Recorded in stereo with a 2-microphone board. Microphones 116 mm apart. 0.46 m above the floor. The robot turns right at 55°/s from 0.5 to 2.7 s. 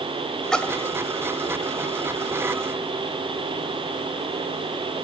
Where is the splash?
5° left (ahead or behind), 1.4 m; by 1.0 s 30° left (ahead or behind), 1.4 m.